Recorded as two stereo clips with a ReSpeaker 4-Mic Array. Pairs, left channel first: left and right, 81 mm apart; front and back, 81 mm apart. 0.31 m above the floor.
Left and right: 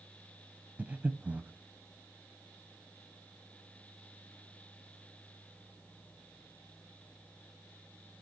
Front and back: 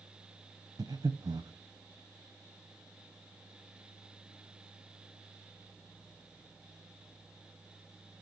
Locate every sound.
0.8 s breathing: 160° right, 0.6 m